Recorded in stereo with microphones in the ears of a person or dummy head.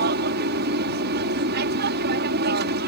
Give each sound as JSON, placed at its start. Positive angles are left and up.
{"t": 0.0, "sound": "an aircraft", "side_deg": -60}